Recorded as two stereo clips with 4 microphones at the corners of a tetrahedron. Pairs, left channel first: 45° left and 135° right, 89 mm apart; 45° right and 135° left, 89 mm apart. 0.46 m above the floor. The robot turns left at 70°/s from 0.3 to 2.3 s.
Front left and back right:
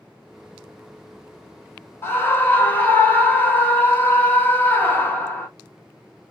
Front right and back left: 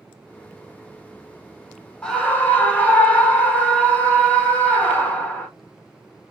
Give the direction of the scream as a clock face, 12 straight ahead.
11 o'clock.